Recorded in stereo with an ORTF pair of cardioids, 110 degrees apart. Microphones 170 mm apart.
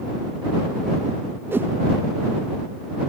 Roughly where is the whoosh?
Ahead.